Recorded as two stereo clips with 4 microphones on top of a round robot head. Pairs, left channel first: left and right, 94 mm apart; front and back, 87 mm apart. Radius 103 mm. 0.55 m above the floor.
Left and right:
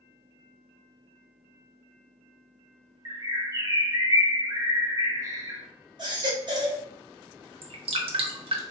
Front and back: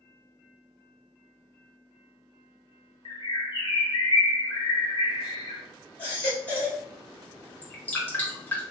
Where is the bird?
35° right, 0.8 m.